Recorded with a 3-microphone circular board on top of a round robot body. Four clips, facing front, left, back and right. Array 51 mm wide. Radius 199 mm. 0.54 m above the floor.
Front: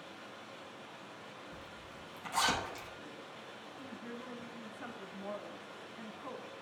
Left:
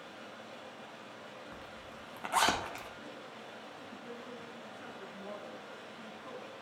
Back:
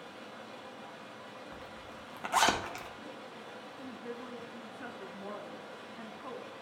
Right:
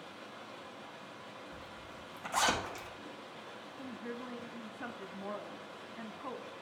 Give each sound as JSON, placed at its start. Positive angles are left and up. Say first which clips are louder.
{"t": 0.0, "sound": "running water", "louder": "even, back 3 dB", "azimuth_deg": 125, "distance_m": 2.0}
{"t": 1.5, "sound": "a zipper", "louder": "even, back 3 dB", "azimuth_deg": 140, "distance_m": 1.1}
{"t": 3.8, "sound": "a woman speaking", "louder": "right 7 dB, back 3 dB", "azimuth_deg": -105, "distance_m": 1.0}